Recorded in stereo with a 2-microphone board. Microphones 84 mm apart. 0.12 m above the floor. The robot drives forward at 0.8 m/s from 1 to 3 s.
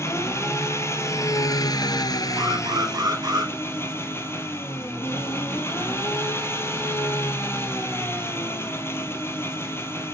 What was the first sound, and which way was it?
An engine running, 35° left (ahead or behind).